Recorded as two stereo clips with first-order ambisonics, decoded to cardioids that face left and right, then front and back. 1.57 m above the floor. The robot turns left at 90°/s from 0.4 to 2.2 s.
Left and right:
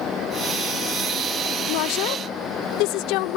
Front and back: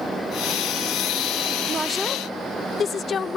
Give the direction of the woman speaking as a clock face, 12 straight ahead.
8 o'clock.